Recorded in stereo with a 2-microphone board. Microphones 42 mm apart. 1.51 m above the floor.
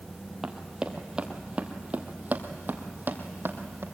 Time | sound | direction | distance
0.4 | running footsteps | 10° right (ahead or behind) | 1.8 m